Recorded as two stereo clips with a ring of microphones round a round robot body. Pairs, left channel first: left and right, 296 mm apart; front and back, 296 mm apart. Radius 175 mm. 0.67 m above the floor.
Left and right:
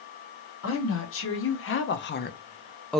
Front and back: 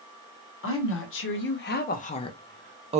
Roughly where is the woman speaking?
Ahead left.